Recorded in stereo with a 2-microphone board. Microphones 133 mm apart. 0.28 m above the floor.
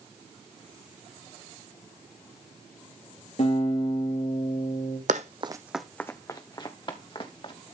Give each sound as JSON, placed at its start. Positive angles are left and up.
{"t": 3.4, "sound": "a guitar", "side_deg": 65, "distance_m": 4.5}
{"t": 5.1, "sound": "running footsteps", "side_deg": -70, "distance_m": 0.9}